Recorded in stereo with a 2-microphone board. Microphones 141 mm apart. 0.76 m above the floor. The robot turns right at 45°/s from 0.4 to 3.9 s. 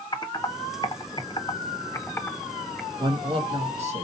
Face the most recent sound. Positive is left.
turn(degrees=-100)